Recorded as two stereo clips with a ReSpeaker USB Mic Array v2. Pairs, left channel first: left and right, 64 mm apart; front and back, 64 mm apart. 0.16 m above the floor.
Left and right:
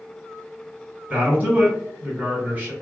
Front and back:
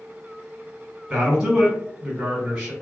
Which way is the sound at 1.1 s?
115° right.